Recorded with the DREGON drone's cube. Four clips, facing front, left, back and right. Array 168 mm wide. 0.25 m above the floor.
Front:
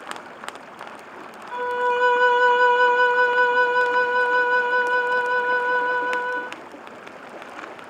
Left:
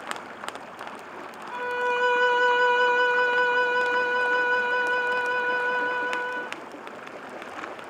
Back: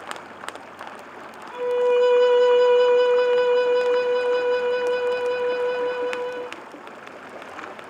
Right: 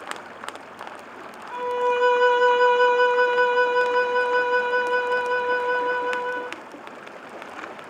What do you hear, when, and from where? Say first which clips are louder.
1.5 s a violin: right 4 dB, back 3 dB; 20° right, 0.8 m